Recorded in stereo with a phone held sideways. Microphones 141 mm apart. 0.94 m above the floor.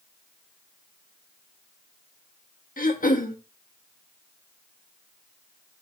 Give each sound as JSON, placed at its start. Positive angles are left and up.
{"t": 2.8, "sound": "throat clearing", "side_deg": 75, "distance_m": 1.1}